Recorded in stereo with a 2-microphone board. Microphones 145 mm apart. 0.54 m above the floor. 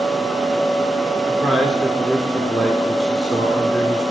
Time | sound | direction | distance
1.3 | a man speaking | 5° left (ahead or behind) | 1.3 m